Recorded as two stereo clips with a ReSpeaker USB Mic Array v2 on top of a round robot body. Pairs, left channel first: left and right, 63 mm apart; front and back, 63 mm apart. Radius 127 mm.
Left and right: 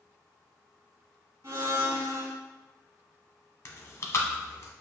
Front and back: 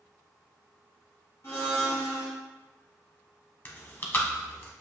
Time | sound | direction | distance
1.4 | a blender | 45° right | 1.4 m
3.6 | chewing | 50° left | 1.1 m